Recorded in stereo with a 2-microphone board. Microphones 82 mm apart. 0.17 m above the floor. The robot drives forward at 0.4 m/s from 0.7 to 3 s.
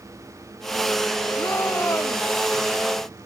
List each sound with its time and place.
1.4 s a shout: 30° left (ahead or behind)